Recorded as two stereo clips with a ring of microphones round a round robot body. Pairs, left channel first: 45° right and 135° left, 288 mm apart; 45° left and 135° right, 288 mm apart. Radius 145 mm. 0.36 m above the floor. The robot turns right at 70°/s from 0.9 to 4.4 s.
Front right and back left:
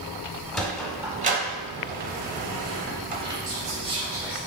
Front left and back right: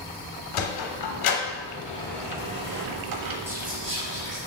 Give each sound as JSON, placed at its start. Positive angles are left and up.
{"t": 0.5, "sound": "a sliding door", "azimuth_deg": 45, "distance_m": 0.7}
{"t": 3.5, "sound": "whispering", "azimuth_deg": 155, "distance_m": 1.6}